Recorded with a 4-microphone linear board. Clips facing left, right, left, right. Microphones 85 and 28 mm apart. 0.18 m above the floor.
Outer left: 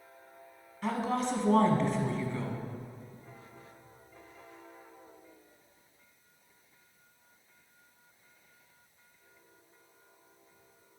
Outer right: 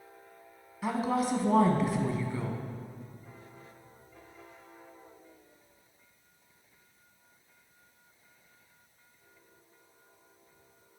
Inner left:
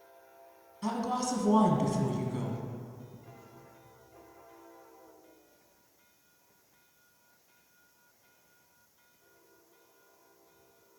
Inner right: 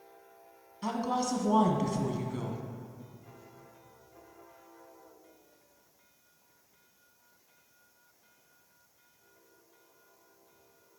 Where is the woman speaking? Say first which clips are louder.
Outer right 2 dB, inner right 1 dB; 5° right (ahead or behind), 1.3 m.